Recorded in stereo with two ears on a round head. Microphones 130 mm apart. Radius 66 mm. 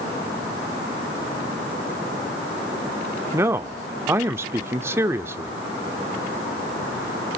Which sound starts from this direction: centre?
A man speaking, at 3.3 s.